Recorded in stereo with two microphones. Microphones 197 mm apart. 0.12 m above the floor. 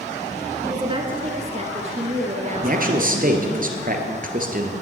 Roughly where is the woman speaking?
Centre.